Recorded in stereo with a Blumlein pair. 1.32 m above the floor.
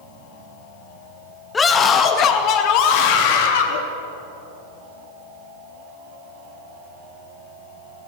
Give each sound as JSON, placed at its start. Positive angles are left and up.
{"t": 1.5, "sound": "a scream", "azimuth_deg": 15, "distance_m": 1.9}